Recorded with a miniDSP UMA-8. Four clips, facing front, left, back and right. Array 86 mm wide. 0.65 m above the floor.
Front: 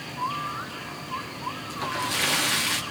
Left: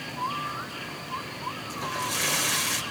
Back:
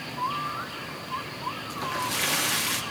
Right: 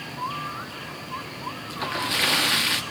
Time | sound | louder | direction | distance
1.7 | a splash | right 4 dB, front 1 dB | 80° right | 1.0 m